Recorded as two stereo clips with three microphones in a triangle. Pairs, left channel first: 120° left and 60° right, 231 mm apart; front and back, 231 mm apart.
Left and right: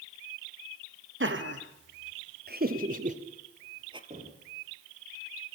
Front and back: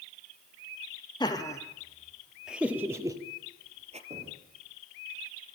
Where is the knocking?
120° right, 6.5 m.